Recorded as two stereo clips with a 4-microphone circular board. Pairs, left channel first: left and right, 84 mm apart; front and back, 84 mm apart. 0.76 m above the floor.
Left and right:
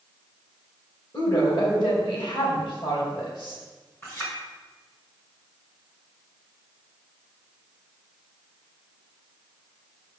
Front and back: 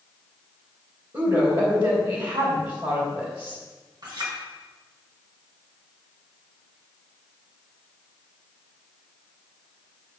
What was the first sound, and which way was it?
A woman speaking, 130° left.